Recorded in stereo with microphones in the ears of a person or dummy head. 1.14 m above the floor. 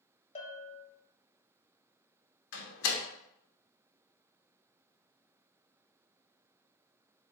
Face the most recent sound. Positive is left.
turn(degrees=75)  # may be behind; listen again after turning